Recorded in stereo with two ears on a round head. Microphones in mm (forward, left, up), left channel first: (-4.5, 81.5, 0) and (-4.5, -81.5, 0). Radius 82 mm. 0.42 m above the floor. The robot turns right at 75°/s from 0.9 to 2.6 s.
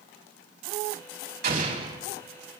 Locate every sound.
1.4 s an explosion: 60° right, 3.5 m; by 2.0 s 20° right, 3.5 m